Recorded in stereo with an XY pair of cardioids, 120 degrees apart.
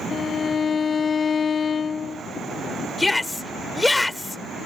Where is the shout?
5° left.